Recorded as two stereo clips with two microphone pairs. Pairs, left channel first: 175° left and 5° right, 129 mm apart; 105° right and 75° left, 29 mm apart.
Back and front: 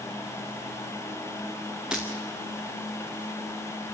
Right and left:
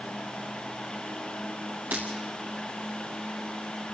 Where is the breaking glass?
80° left, 3 m.